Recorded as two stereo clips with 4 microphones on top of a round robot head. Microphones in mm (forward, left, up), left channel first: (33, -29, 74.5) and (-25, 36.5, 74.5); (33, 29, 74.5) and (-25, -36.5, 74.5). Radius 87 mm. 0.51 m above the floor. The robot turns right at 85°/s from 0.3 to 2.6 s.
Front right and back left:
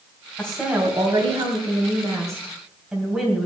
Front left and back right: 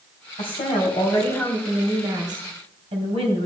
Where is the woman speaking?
30° left, 3 m; by 3.5 s 145° right, 3 m.